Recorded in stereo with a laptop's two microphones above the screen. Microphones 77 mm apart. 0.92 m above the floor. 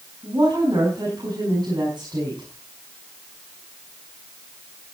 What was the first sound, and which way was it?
A woman speaking, 60° right (ahead or behind).